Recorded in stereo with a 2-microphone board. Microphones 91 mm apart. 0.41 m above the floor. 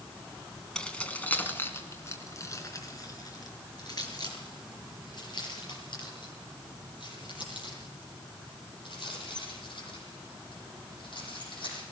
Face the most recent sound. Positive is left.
turn(degrees=70)  # may be behind; listen again after turning